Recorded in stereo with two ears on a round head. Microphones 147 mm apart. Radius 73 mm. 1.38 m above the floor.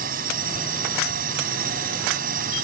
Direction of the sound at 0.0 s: 55° right (ahead or behind).